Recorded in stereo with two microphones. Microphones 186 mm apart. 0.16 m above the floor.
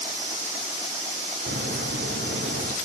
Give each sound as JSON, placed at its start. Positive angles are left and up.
{"t": 1.5, "sound": "a crack", "side_deg": -65, "distance_m": 1.8}